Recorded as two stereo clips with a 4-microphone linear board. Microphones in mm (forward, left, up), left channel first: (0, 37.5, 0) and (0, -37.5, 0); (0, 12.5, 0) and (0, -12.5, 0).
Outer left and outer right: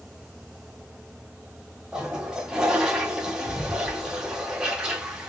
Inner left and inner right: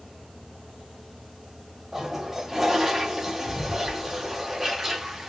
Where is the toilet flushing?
10° right (ahead or behind), 0.8 m.